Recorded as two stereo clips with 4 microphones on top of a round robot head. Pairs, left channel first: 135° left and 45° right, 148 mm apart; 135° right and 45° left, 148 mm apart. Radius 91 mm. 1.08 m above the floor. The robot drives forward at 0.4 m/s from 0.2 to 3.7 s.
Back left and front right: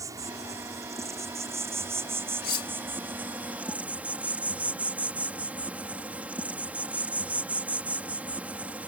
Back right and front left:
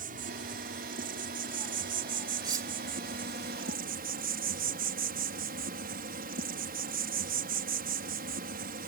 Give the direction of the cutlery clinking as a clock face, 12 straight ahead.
8 o'clock.